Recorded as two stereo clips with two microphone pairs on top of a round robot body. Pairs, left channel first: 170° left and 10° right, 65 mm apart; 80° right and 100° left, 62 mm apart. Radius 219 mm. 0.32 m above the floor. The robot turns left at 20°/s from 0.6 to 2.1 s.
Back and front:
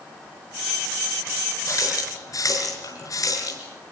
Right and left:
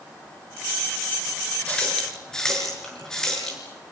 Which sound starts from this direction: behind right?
A running tap, at 1.7 s.